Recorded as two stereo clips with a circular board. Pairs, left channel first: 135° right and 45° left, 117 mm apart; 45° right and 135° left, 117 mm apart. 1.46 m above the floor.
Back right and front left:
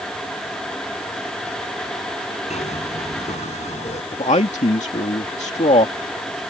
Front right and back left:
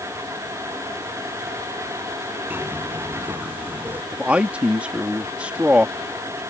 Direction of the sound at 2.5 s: 150° right.